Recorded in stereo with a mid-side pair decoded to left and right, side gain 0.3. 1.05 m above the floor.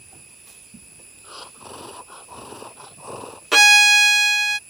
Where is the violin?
20° right.